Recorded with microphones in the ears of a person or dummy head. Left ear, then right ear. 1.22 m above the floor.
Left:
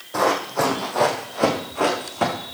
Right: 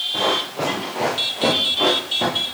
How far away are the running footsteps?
About 2.5 m.